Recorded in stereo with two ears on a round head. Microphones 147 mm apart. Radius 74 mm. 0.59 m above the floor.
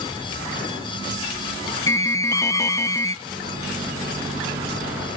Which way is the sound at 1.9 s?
20° left (ahead or behind).